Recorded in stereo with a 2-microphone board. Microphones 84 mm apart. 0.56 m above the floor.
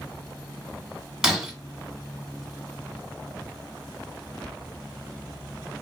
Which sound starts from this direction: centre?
Breaking glass, at 1.2 s.